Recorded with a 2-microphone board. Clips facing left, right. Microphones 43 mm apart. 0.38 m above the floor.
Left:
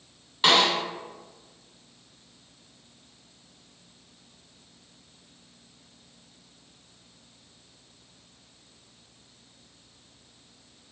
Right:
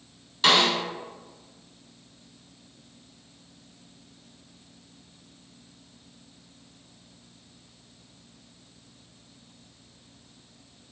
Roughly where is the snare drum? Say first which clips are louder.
Even; centre.